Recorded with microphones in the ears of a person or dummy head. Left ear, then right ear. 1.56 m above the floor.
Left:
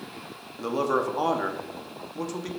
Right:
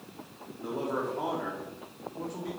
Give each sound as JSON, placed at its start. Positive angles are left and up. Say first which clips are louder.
{"t": 0.6, "sound": "a man speaking", "louder": "left 7 dB", "side_deg": 80, "distance_m": 1.1}